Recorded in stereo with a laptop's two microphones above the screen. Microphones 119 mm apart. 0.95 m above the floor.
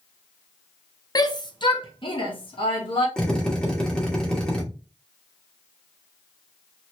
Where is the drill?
10° left (ahead or behind), 1.0 m.